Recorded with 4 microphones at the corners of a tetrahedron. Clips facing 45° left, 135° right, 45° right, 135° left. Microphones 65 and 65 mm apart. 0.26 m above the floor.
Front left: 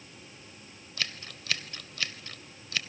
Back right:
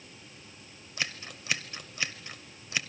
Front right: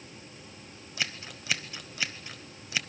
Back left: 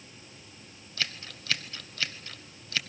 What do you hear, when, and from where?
1.0 s scissors: 95° right, 1.1 m